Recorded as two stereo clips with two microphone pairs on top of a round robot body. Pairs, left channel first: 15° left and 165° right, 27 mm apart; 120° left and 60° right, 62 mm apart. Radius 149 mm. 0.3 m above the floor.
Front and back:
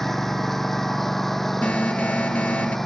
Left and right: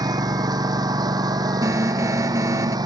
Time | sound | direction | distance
0.0 | a lawn mower | 70° right | ?
1.6 | an alarm | 15° right | ?